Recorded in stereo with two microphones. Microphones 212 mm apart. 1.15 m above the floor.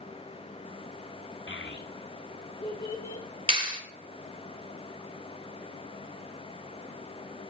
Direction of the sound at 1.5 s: 70° left (ahead or behind).